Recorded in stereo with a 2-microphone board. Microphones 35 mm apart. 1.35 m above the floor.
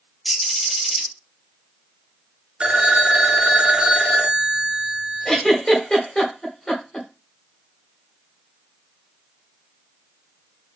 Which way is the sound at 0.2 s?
Centre (ahead or behind).